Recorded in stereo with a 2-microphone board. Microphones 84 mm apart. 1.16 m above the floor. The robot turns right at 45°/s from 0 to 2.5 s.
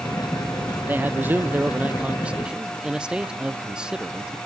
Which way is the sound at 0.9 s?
20° right (ahead or behind).